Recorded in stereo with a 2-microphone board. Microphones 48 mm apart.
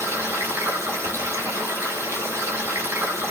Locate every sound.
0.0 s running water: 80° right, 1.6 m